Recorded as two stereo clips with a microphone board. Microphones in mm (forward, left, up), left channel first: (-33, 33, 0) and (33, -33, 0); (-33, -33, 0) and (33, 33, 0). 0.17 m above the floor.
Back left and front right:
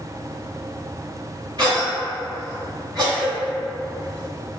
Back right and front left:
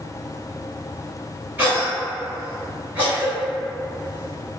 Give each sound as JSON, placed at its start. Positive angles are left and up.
{"t": 1.6, "sound": "a cough", "azimuth_deg": -15, "distance_m": 1.8}